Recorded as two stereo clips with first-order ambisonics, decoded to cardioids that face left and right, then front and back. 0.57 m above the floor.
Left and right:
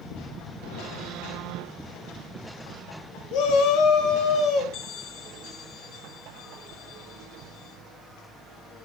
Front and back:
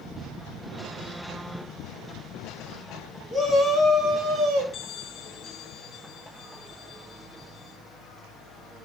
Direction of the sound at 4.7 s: 65° left.